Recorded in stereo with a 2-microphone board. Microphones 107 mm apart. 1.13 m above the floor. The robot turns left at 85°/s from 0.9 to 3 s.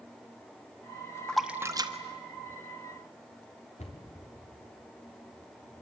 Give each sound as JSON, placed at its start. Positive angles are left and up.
{"t": 1.3, "sound": "a splash", "side_deg": 10, "distance_m": 1.3}
{"t": 3.8, "sound": "a cupboard door", "side_deg": 80, "distance_m": 3.5}